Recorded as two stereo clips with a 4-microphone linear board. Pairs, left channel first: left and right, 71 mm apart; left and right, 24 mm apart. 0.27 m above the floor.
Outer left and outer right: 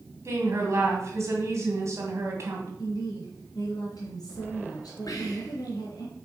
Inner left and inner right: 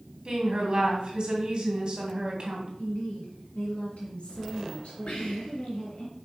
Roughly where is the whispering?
Left.